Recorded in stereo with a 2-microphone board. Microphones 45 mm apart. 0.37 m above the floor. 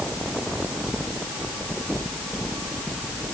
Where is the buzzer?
No buzzer in this recording.